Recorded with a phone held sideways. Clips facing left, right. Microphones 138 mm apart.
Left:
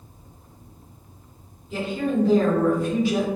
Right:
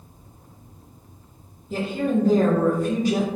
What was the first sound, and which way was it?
A woman speaking, 40° right (ahead or behind).